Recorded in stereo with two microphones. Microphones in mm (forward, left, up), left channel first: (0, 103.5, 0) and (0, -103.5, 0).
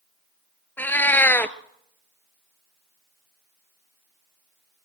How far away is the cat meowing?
About 0.6 m.